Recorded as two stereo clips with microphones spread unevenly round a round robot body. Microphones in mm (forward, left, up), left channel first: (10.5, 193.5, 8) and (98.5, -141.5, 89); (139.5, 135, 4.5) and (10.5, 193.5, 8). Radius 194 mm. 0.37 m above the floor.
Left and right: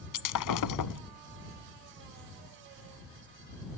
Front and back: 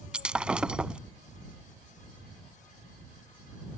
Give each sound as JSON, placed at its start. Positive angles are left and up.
{"t": 0.1, "sound": "breaking glass", "azimuth_deg": 70}